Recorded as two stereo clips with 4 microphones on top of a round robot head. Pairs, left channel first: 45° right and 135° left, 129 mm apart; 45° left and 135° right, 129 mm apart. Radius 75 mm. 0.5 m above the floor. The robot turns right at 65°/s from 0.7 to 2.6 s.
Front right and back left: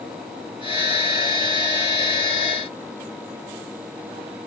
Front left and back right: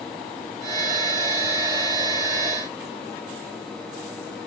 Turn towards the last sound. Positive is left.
No sound to turn to.